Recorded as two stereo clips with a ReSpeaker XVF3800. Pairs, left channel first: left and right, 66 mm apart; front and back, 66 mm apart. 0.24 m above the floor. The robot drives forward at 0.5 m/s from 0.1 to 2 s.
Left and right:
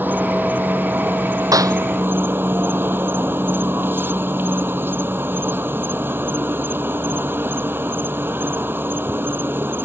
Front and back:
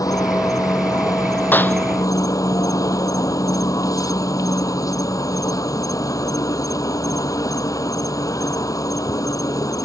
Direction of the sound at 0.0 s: 30° right.